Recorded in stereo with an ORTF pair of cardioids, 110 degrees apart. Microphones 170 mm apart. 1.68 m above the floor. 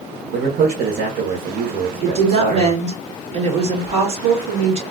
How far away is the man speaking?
About 1.3 m.